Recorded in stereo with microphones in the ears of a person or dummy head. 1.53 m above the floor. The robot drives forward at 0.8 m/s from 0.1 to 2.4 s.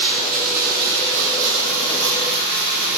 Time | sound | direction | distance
0.0 | running water | 45° right (ahead or behind) | 1.9 m